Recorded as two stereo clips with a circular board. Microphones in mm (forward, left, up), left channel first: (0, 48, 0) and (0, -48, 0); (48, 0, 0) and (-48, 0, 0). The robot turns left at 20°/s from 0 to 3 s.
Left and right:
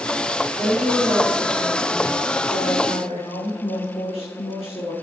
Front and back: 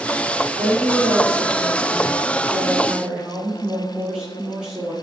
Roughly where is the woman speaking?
Behind left.